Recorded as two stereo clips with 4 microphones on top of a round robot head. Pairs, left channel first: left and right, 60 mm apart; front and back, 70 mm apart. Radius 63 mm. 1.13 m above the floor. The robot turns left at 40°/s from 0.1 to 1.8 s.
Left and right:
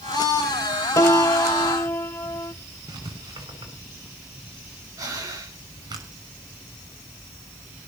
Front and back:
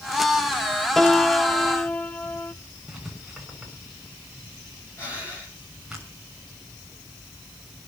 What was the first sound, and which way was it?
A piano, 85° left.